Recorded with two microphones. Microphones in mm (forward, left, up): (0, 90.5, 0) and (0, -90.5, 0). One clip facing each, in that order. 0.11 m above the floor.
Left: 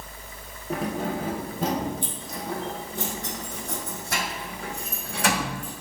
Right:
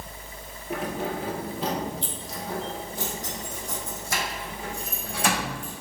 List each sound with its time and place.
0.7 s keys jangling: 35° left (ahead or behind), 1.9 m; by 5.7 s 65° left (ahead or behind), 5.5 m